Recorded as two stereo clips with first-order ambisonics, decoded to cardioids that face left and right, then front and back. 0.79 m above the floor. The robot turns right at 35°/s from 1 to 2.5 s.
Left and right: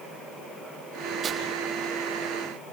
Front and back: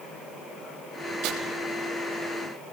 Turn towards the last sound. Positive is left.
turn(degrees=-120)